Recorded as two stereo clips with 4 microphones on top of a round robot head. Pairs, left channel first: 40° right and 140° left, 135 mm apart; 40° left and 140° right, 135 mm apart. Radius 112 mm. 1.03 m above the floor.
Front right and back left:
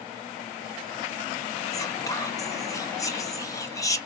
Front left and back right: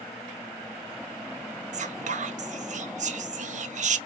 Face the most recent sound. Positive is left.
turn(degrees=-105)